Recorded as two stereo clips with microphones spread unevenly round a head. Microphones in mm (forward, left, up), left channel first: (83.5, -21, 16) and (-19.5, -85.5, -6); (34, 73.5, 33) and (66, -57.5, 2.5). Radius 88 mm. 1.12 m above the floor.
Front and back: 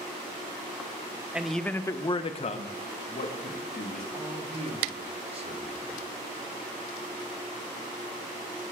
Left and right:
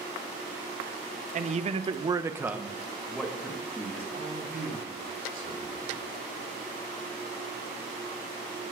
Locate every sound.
1.3 s a man speaking: 70° right, 0.8 m; by 4.0 s 30° left, 1.9 m
4.1 s a man speaking: 115° right, 2 m